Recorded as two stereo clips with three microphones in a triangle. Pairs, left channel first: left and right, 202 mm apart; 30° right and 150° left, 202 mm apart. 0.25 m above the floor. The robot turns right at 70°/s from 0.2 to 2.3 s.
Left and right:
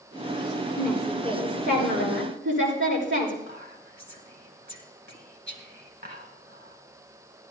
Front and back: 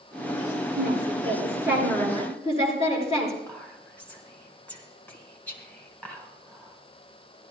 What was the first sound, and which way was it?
A woman speaking, 165° left.